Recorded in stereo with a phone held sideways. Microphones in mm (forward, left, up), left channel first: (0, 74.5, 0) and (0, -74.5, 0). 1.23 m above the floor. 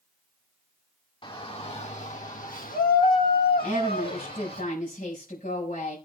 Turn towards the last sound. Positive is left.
turn(degrees=65)  # may be behind; listen again after turning